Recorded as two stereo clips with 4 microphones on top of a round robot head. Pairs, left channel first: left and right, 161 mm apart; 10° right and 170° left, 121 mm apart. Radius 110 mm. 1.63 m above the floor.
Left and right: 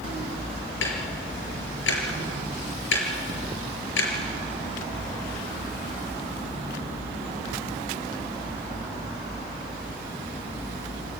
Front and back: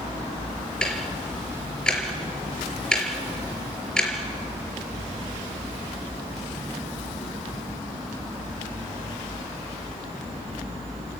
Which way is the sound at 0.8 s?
75° left.